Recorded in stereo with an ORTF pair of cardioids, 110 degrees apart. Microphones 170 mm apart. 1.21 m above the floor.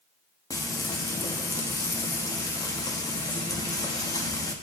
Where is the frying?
20° left, 1.4 m.